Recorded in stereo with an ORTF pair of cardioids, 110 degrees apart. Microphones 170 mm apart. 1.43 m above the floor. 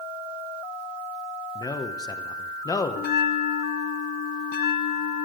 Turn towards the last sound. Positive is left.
turn(degrees=65)